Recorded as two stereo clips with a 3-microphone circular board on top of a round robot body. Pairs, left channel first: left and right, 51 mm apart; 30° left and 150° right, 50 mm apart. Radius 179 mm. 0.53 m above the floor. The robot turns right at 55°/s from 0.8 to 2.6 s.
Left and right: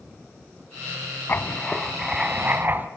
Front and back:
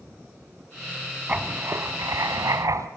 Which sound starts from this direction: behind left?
Writing, at 1.3 s.